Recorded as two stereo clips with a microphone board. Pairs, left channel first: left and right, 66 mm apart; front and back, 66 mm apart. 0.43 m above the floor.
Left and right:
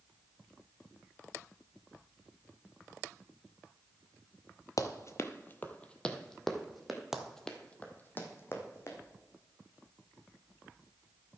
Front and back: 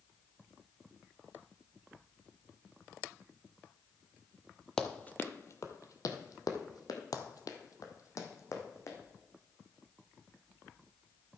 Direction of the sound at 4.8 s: 80° left.